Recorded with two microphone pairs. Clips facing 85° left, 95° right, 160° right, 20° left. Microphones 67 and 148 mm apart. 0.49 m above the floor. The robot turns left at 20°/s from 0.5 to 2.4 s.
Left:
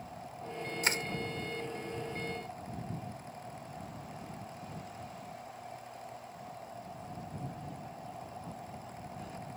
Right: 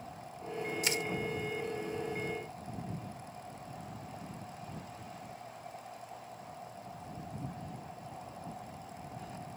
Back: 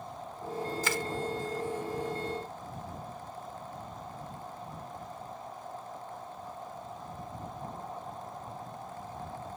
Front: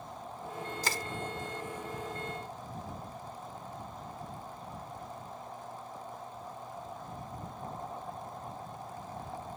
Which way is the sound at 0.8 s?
60° left.